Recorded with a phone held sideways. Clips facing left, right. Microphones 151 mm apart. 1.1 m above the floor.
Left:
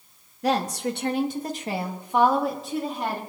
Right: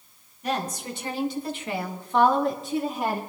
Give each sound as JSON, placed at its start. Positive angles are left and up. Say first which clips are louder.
{"t": 0.4, "sound": "a woman speaking", "louder": "left 5 dB", "side_deg": 80, "distance_m": 1.7}